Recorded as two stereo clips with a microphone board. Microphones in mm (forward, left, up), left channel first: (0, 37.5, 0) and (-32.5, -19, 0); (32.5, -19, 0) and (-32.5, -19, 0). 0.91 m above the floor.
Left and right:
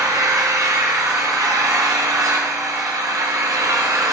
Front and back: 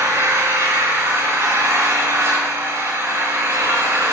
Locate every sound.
0.0 s an engine running: 135° right, 3.5 m